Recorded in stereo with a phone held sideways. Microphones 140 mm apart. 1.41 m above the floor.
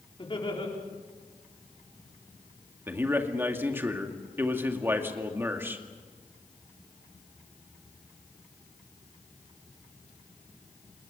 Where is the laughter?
35° left (ahead or behind), 4.5 m.